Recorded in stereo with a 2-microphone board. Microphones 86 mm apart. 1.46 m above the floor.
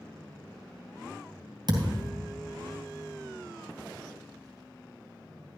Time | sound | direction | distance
1.7 | a thud | 55° right (ahead or behind) | 2.5 m